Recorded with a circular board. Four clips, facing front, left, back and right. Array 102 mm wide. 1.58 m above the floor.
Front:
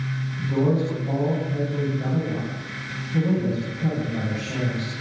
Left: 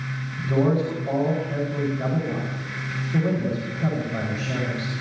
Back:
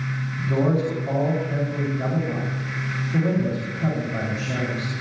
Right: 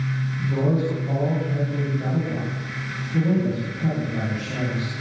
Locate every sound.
0.4 s a man speaking: 140° left, 9 m